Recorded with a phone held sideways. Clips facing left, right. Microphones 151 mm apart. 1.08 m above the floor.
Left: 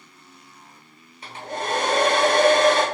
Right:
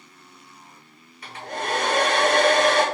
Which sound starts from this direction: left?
A hair dryer, at 1.2 s.